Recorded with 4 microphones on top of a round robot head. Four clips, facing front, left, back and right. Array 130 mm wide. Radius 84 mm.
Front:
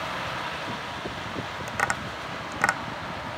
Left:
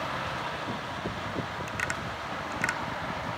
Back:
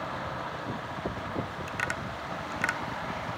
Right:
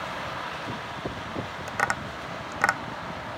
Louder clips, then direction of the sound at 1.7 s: Right 5 dB, front 5 dB; 50° right.